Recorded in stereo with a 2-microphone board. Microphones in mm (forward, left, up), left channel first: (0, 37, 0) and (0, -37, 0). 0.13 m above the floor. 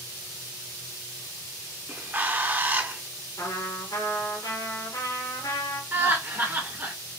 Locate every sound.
1.9 s a bird: 25° right (ahead or behind), 0.5 m
3.4 s a trumpet: 65° left (ahead or behind), 2.5 m
5.9 s laughter: 35° right (ahead or behind), 1.9 m